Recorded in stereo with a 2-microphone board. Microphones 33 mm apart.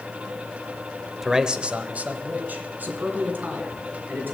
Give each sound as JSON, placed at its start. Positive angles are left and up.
{"t": 1.2, "sound": "a man speaking", "side_deg": -10, "distance_m": 0.9}